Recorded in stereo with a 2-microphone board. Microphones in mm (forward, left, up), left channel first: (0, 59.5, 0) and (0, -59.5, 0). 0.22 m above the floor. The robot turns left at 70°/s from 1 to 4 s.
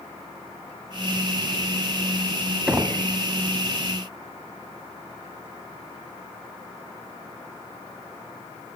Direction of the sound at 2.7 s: 10° right (ahead or behind).